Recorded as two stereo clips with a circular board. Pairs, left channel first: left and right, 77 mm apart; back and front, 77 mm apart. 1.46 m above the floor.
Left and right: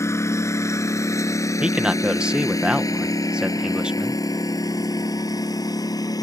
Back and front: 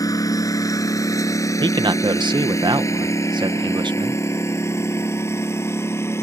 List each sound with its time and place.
0.0 s a lawn mower: 140° left; by 6.2 s 125° left
1.6 s a man speaking: 10° right